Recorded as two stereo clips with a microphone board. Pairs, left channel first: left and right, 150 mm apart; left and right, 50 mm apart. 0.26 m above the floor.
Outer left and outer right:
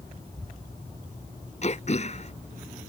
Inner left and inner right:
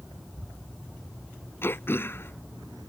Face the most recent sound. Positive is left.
turn(degrees=50)  # may be behind; listen again after turning